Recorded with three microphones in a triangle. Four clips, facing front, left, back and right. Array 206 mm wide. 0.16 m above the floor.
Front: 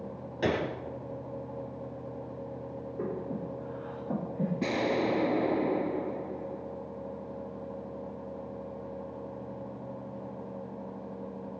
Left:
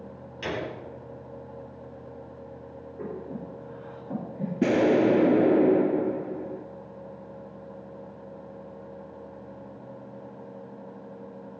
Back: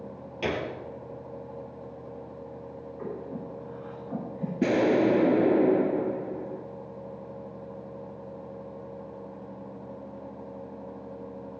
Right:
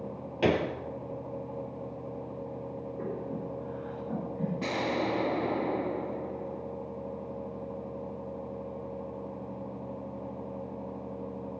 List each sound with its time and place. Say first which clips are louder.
0.4 s a gunshot: right 6 dB, front 1 dB; 80° right, 2.0 m
3.0 s breathing: left 1 dB, front 2 dB; straight ahead, 8.5 m
4.6 s an explosion: left 12 dB, back 8 dB; 120° left, 0.9 m